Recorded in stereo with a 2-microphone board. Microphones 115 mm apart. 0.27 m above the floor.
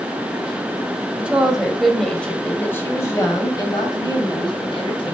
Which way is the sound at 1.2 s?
10° right (ahead or behind).